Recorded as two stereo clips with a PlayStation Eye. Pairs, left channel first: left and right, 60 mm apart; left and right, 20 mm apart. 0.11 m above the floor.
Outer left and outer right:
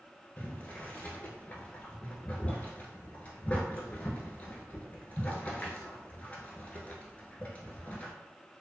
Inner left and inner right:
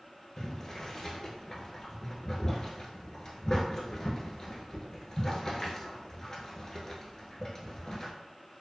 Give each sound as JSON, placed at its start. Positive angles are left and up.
{"t": 0.4, "sound": "boiling", "side_deg": 25, "distance_m": 0.7}